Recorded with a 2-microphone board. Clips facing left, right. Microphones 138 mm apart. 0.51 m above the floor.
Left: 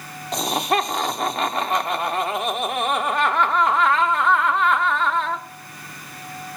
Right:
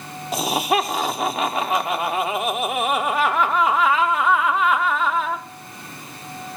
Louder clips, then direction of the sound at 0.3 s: Right 1 dB; 5° right (ahead or behind).